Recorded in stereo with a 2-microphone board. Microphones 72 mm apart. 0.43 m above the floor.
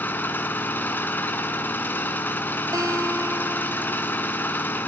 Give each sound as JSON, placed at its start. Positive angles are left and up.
{"t": 0.0, "sound": "an engine running", "side_deg": 25, "distance_m": 1.7}
{"t": 2.7, "sound": "a guitar", "side_deg": -45, "distance_m": 3.0}